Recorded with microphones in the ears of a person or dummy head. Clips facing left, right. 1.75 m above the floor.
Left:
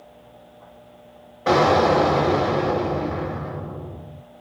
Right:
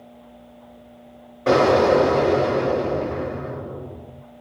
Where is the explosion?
Centre (ahead or behind), 2 m.